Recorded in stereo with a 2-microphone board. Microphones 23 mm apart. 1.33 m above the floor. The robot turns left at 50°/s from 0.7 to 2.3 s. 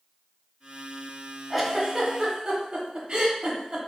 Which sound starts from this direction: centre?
A giggle, at 1.5 s.